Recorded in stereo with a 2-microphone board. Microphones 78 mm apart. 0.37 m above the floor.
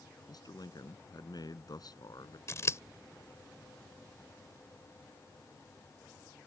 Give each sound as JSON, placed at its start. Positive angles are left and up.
{"t": 0.3, "sound": "a man speaking", "side_deg": 60}
{"t": 2.5, "sound": "scissors", "side_deg": 40}